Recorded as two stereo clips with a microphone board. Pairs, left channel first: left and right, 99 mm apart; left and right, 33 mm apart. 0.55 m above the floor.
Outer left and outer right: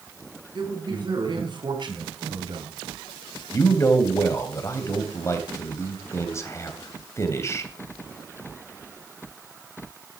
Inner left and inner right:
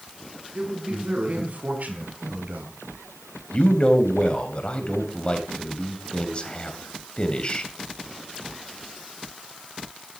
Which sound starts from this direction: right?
A man speaking, at 0.6 s.